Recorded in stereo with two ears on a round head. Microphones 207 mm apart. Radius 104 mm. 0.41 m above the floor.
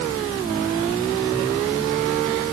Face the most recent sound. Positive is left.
No sound to turn to.